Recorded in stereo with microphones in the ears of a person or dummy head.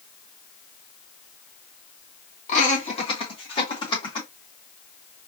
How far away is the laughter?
About 1.7 m.